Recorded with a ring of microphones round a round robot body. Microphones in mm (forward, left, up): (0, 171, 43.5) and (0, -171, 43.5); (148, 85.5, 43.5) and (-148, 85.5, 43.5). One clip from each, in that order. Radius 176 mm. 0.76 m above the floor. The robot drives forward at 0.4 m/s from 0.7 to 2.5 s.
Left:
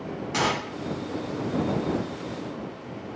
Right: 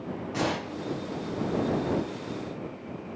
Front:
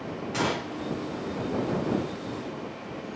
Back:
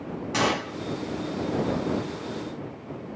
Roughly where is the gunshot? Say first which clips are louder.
Left 5 dB, back 4 dB; behind left.